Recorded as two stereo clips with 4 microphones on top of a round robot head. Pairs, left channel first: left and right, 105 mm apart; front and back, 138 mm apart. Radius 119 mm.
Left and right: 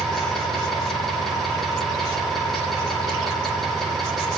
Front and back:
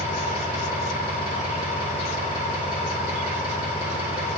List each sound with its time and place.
0.0 s an engine running: straight ahead, 8.5 m